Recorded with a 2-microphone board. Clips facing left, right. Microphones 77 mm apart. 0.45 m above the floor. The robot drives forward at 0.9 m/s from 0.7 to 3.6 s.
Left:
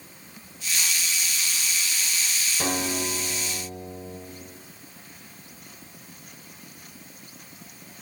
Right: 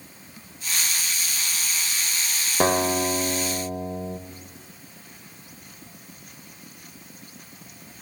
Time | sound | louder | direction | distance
2.6 | a guitar | right 8 dB | 50° right (ahead or behind) | 1.3 m